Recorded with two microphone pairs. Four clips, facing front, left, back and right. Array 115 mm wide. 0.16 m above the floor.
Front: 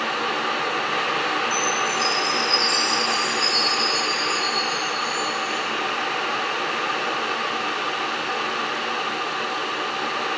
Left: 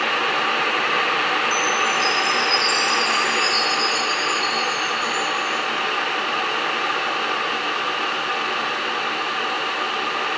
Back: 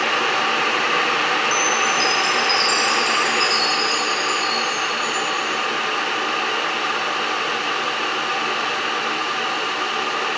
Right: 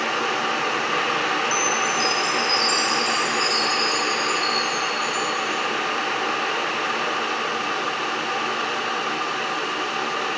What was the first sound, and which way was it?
A chime, 85° right.